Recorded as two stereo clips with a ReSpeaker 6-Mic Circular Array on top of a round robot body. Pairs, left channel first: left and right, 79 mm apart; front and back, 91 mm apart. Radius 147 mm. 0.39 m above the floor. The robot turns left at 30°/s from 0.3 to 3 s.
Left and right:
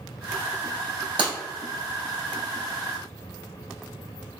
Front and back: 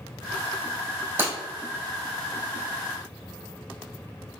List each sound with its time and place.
1.2 s breaking glass: 115° right, 1.5 m; by 1.3 s 120° right, 1.5 m